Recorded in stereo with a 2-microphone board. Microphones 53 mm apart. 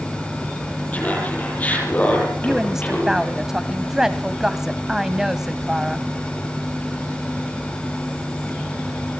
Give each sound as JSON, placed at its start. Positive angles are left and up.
{"t": 0.9, "sound": "laughter", "side_deg": 30, "distance_m": 7.5}
{"t": 2.4, "sound": "a woman speaking", "side_deg": -10, "distance_m": 1.2}